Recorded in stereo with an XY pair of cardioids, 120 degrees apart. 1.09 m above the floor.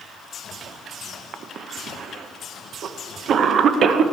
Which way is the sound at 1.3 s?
50° right.